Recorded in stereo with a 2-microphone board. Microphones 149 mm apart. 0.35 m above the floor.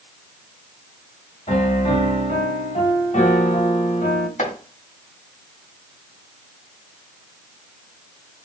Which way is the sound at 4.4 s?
60° left (ahead or behind).